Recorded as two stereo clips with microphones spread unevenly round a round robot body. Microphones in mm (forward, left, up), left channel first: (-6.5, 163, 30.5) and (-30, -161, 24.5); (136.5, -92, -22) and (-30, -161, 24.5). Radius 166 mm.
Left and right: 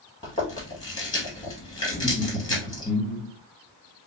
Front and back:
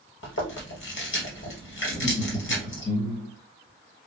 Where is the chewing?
10° left, 1.5 m.